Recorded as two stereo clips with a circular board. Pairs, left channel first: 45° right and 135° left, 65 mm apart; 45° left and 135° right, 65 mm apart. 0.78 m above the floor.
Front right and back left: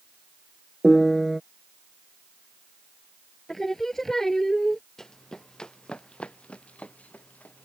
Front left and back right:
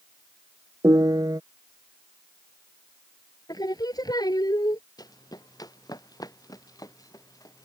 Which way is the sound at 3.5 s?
35° left.